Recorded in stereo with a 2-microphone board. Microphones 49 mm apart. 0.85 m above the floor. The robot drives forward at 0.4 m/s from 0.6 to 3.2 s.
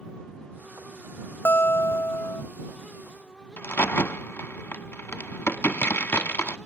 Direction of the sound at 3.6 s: 50° left (ahead or behind).